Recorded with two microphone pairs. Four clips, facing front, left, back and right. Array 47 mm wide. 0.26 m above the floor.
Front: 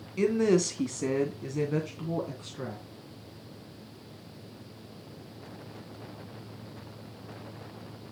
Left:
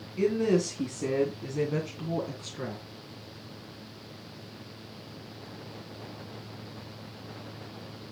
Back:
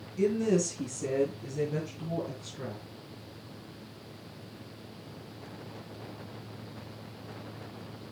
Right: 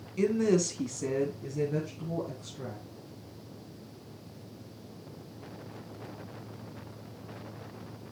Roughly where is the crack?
No crack in this recording.